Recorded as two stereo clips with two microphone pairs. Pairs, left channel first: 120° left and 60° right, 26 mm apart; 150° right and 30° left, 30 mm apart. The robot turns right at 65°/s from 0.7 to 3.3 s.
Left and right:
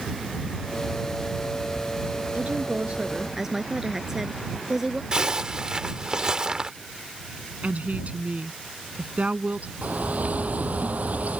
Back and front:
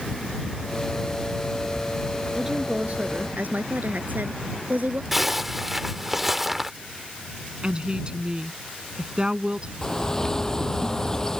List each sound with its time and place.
2.4 s a woman speaking: 50° right; by 5.0 s 10° left
5.1 s a zipper: 50° right
7.6 s a woman speaking: 30° right
9.8 s a bird: 80° right